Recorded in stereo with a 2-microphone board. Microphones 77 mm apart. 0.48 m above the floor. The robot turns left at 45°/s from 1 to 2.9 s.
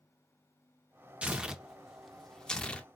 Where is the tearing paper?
15° right (ahead or behind), 0.5 m; by 2.9 s 15° left (ahead or behind), 0.5 m.